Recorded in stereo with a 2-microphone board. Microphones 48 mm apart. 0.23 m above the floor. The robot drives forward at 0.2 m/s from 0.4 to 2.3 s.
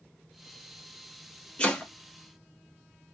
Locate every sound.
1.6 s chopping: 25° left (ahead or behind), 1.1 m